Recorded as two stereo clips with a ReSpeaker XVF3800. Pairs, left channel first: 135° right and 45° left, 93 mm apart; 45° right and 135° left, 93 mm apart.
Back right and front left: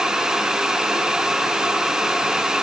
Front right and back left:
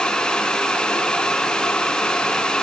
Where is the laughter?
I don't hear laughter.